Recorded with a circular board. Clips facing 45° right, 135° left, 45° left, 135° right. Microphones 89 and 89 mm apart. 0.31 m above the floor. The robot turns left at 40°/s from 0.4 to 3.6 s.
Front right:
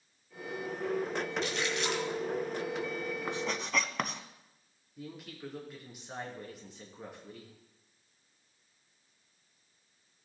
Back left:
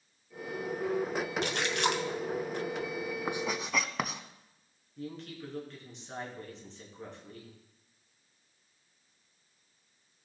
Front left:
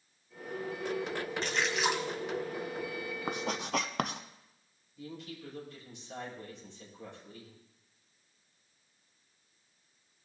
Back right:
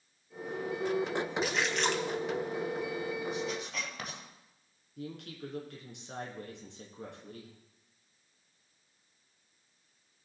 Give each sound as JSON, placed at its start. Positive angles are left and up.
{"t": 1.4, "sound": "a splash", "azimuth_deg": 145, "distance_m": 0.9}
{"t": 3.3, "sound": "writing", "azimuth_deg": 60, "distance_m": 0.7}
{"t": 5.0, "sound": "a woman speaking", "azimuth_deg": -125, "distance_m": 4.0}